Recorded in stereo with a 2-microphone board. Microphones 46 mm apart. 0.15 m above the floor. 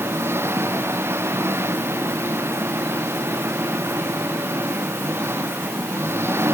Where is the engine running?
65° right (ahead or behind).